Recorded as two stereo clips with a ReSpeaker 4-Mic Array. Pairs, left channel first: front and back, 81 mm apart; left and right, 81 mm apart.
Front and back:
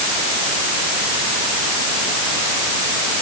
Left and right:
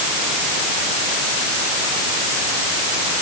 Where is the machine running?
No machine running in this recording.